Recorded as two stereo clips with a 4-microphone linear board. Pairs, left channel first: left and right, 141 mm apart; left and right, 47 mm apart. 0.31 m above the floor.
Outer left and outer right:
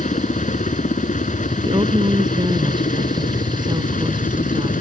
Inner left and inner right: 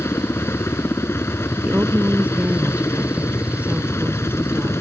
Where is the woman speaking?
35° right (ahead or behind).